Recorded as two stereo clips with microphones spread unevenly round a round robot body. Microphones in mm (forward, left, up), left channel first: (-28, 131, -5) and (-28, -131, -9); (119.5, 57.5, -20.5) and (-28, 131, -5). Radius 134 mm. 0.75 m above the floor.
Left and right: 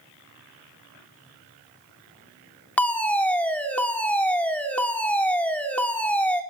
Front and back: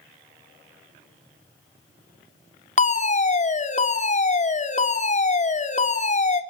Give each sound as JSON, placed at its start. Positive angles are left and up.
{"t": 2.8, "sound": "a fire alarm", "azimuth_deg": 5, "distance_m": 3.0}